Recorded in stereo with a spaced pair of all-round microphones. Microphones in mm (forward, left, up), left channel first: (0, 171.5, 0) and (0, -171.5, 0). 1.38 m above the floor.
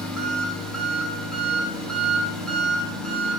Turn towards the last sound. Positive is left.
turn(degrees=0)  # may be behind; listen again after turning